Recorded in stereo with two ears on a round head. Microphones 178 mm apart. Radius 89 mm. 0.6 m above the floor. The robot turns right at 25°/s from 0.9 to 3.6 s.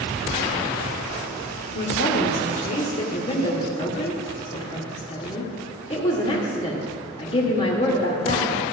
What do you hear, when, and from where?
1.8 s a woman speaking: 100° left, 1.8 m; by 8.6 s 145° left, 1.8 m